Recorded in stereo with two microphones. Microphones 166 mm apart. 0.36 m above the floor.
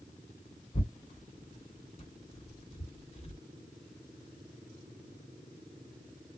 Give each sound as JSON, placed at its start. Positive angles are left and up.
{"t": 0.7, "sound": "tearing paper", "side_deg": 40, "distance_m": 1.9}